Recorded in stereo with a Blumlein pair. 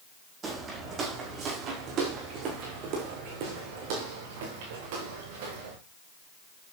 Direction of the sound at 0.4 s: 20° right.